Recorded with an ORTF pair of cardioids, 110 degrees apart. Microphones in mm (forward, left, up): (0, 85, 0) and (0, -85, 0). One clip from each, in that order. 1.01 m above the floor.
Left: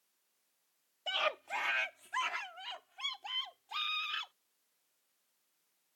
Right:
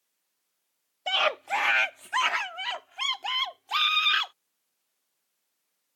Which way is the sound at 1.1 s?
45° right.